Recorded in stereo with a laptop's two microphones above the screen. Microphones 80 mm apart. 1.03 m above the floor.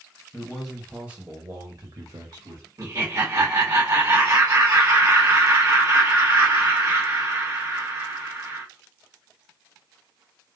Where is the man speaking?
15° left (ahead or behind), 0.9 m; by 2.7 s 65° right (ahead or behind), 1.5 m.